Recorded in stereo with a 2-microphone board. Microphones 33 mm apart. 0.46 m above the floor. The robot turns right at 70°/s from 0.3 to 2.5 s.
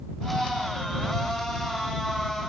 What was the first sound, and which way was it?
Only background noise.